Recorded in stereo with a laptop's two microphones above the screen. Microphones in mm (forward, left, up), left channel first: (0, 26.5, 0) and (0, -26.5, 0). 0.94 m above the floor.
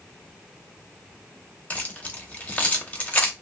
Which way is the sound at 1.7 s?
30° left (ahead or behind).